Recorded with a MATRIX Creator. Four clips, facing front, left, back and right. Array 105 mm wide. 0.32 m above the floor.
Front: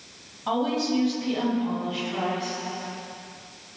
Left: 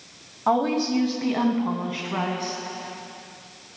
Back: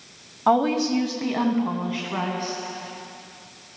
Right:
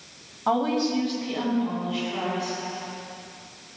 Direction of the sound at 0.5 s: 170° left.